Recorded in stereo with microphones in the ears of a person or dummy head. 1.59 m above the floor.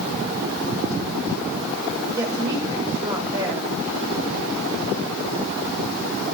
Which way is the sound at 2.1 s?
15° right (ahead or behind).